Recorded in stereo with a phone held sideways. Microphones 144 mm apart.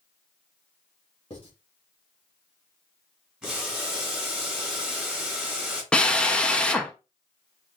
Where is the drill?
5° left (ahead or behind), 0.6 m.